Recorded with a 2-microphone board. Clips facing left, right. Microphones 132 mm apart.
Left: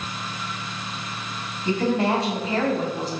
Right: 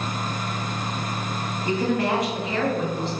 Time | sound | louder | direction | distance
1.6 | a woman speaking | left 2 dB | 20° left (ahead or behind) | 2.5 m